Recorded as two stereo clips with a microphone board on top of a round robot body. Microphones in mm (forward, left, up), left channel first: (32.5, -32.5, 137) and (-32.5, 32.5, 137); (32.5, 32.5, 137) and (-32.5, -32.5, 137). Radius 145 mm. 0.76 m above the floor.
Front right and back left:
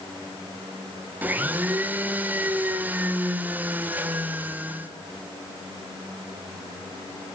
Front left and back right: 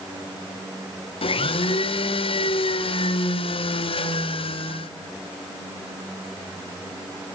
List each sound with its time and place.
1.2 s a blender: 65° left, 2.5 m